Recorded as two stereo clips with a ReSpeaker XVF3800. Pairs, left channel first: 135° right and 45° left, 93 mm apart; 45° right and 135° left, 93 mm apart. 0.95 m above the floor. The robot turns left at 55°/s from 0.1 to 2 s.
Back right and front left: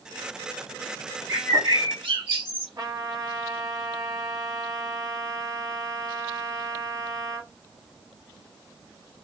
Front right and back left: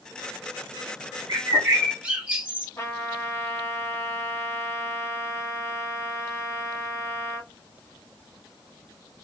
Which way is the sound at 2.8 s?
5° left.